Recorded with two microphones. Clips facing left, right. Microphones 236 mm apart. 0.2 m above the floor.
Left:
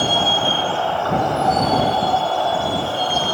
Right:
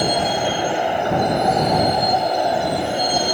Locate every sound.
0.0 s a vehicle: 15° right (ahead or behind)